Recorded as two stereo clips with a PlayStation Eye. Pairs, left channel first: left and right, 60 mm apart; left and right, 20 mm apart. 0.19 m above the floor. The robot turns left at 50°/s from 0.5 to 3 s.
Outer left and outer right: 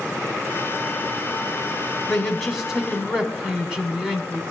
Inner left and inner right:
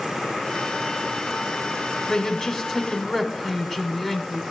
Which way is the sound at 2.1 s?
10° left (ahead or behind).